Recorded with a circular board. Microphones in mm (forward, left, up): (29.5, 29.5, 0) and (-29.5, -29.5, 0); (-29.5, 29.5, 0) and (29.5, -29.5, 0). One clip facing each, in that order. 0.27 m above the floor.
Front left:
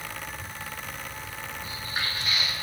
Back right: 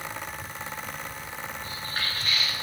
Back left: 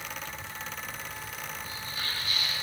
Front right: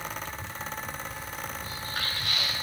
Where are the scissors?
No scissors in this recording.